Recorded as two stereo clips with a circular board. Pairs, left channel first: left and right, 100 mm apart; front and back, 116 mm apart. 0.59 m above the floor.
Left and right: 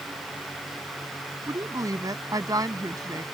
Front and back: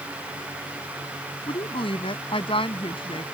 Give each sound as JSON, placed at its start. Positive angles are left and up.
{"t": 1.5, "sound": "a woman speaking", "azimuth_deg": -40}